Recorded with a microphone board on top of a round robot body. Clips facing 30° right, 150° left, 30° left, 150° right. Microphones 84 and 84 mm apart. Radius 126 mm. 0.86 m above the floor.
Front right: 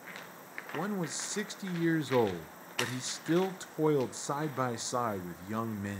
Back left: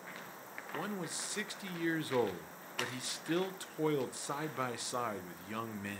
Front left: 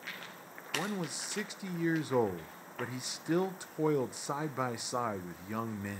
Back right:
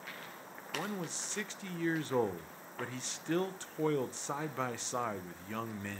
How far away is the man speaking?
About 0.5 m.